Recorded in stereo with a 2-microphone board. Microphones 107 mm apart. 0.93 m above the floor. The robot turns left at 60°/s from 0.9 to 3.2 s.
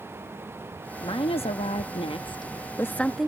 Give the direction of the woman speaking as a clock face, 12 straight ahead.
8 o'clock.